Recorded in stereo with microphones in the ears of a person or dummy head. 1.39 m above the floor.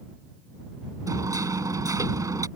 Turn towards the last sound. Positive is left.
turn(degrees=-20)  # may be behind; listen again after turning